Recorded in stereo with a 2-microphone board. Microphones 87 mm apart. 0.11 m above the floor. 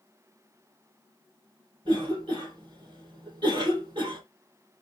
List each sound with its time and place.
1.9 s a cough: 65° right (ahead or behind), 3 m